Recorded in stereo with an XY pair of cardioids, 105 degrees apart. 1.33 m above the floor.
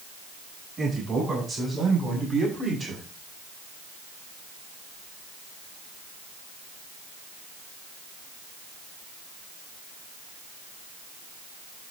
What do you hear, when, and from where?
0.8 s a man speaking: 40° right, 9 m; by 3.0 s 50° right, 7.5 m